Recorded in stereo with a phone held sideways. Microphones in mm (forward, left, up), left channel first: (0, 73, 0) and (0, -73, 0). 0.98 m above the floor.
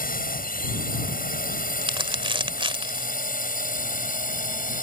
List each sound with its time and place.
0.0 s a drone: 75° left (ahead or behind); by 4.8 s 70° left (ahead or behind)
1.8 s crumpling: 35° right (ahead or behind)